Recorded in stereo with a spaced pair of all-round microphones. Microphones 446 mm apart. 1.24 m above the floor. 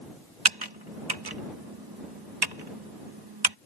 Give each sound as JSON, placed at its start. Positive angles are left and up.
{"t": 0.5, "sound": "typing on a keyboard", "side_deg": -60}